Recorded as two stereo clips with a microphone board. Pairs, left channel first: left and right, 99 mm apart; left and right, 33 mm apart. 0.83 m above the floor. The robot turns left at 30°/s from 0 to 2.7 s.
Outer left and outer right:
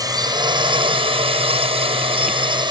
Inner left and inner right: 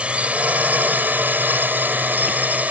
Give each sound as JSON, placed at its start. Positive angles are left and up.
{"t": 0.0, "sound": "a drone", "azimuth_deg": -40}